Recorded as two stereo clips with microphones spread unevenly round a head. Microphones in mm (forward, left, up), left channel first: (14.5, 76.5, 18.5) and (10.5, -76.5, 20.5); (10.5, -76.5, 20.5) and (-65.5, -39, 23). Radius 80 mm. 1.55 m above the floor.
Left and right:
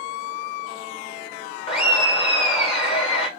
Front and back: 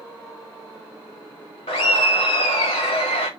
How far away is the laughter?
About 1.2 m.